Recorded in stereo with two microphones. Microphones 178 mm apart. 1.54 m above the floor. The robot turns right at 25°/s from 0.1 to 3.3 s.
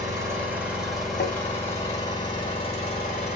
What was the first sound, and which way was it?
An engine running, 20° right.